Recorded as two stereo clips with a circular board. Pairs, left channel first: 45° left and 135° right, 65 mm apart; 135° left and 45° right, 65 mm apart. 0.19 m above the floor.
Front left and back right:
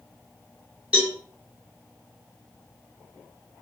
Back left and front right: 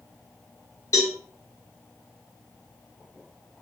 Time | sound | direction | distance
0.9 | a cowbell | 155° left | 2.5 m